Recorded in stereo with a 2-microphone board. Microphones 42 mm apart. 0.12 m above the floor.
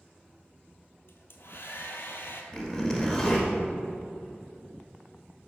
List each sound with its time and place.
1.1 s a hair dryer: 65° left (ahead or behind), 0.7 m
2.5 s a zipper: 15° left (ahead or behind), 1.9 m